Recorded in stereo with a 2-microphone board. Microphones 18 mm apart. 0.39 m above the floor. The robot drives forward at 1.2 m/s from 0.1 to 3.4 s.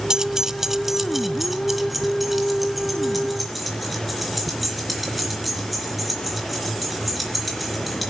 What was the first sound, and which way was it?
Keys jangling, 30° right (ahead or behind).